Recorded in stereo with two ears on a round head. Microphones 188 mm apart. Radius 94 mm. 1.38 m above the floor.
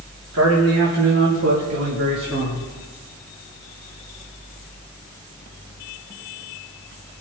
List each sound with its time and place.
0.3 s a man speaking: 85° right, 3 m; by 2.7 s 40° right (ahead or behind), 2.5 m